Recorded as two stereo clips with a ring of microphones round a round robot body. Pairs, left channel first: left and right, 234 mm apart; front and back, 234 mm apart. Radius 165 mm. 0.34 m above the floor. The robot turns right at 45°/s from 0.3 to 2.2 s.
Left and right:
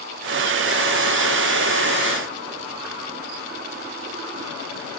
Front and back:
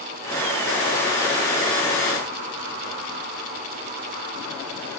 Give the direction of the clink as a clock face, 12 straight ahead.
I don't hear a clink.